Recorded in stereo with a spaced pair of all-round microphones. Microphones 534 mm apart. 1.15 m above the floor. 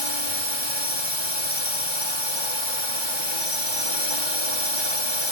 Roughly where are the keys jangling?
I don't hear keys jangling.